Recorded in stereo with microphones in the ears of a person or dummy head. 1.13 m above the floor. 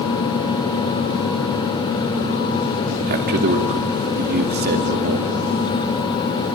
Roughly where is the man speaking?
Right.